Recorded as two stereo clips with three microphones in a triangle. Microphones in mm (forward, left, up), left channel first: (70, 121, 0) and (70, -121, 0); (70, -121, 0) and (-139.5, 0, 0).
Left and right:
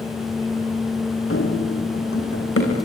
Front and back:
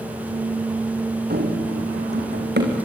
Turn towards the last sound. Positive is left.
turn(degrees=110)